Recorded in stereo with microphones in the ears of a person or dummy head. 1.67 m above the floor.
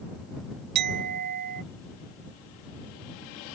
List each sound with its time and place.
0.8 s a clink: 50° right (ahead or behind)